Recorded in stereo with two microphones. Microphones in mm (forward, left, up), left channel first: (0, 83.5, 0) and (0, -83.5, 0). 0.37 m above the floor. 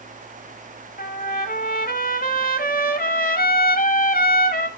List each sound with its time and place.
1.0 s a trumpet: 60° left (ahead or behind), 0.9 m